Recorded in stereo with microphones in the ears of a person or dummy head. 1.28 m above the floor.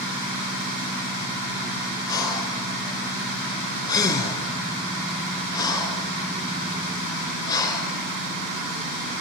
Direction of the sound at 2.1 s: 25° left (ahead or behind).